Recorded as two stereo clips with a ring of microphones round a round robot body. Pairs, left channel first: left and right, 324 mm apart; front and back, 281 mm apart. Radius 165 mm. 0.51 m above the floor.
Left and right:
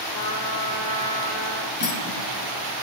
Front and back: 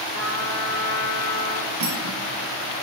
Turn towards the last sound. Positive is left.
turn(degrees=155)